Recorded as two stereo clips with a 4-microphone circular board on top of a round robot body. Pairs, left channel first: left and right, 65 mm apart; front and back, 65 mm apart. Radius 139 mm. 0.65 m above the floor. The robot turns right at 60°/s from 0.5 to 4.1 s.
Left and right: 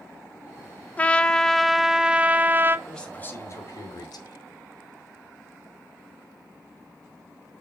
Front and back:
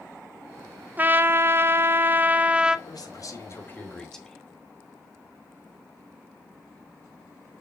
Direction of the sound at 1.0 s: 140° left.